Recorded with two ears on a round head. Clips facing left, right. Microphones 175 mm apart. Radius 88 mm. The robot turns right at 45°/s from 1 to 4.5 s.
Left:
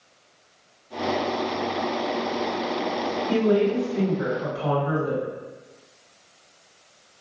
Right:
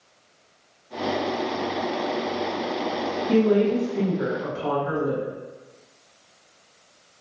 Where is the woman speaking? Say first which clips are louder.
Right 2 dB; 165° left, 1.8 m; by 5.2 s 140° right, 1.8 m.